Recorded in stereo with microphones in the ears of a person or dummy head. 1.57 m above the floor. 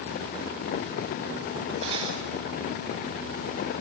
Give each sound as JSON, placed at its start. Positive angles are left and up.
{"t": 1.8, "sound": "cutlery clinking", "side_deg": -25, "distance_m": 4.5}